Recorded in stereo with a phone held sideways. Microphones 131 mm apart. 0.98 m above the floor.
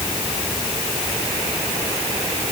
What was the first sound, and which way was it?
Only background noise.